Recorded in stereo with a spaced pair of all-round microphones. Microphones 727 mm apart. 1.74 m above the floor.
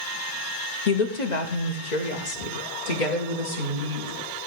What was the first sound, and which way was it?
A woman speaking, 60° left (ahead or behind).